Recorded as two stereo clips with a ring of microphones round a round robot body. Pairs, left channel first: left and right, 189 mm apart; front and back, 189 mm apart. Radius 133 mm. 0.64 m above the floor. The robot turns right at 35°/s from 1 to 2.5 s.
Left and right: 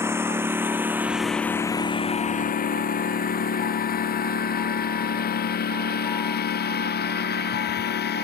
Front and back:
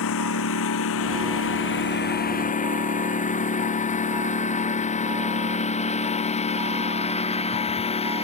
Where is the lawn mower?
15° right; by 8.2 s 60° left.